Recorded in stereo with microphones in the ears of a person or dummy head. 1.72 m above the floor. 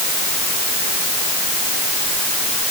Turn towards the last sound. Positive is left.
No sound to turn to.